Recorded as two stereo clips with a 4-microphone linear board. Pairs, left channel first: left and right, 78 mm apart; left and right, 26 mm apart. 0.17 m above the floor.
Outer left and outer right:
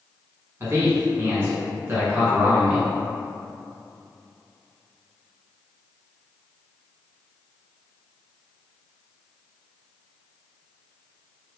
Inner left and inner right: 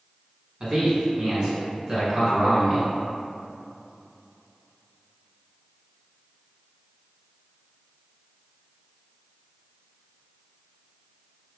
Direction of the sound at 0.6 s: 35° right (ahead or behind).